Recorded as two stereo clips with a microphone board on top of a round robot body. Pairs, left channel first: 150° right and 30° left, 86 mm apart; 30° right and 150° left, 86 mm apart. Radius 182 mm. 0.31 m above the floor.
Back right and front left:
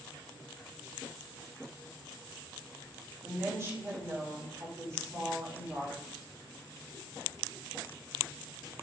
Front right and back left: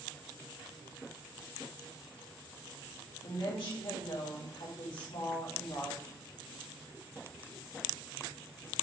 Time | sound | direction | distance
3.2 | a woman speaking | 25° right | 4.5 m